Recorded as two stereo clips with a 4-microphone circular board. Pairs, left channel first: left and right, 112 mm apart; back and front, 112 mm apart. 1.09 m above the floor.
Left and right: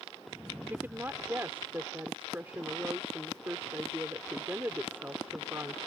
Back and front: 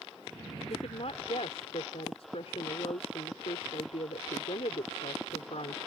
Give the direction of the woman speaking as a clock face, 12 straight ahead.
5 o'clock.